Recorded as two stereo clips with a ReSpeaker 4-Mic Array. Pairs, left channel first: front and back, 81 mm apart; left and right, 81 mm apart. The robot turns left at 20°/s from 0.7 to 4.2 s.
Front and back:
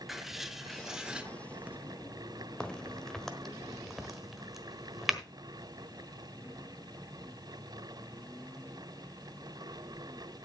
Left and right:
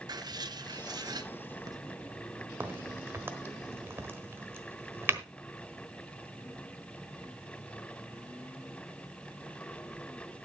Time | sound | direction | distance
0.1 | writing | 95° right | 0.7 m
2.6 | a crack | 70° right | 1.2 m